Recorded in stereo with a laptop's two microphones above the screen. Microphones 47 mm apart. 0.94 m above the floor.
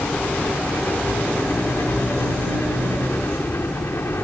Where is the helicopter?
65° left (ahead or behind).